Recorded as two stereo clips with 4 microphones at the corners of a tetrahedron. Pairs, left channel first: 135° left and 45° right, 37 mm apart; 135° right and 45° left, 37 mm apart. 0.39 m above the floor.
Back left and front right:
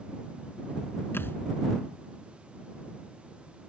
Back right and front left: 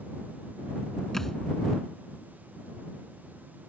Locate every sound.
1.1 s a thud: 145° left